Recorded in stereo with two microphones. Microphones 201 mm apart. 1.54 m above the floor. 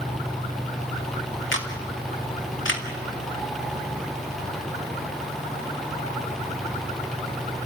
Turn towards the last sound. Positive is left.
turn(degrees=75)  # may be behind; listen again after turning